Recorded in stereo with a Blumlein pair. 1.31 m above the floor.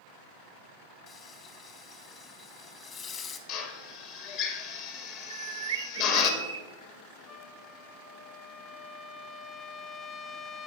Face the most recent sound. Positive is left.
turn(degrees=20)